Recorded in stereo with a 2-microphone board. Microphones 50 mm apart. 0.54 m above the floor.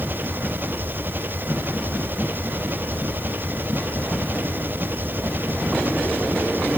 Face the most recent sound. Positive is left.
turn(degrees=-40)  # may be behind; listen again after turning